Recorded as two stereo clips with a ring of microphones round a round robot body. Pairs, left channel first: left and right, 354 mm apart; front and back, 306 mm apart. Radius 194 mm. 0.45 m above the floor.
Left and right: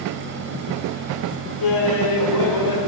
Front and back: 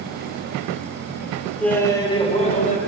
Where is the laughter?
85° left, 1.6 m; by 2.8 s 65° left, 2.5 m.